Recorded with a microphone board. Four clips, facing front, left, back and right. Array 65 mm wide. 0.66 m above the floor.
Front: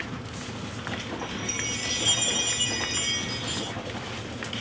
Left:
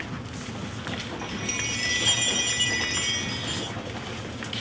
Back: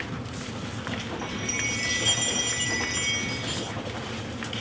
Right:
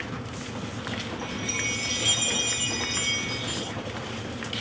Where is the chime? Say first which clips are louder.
Right 1 dB, back 2 dB; 85° left, 1.0 m.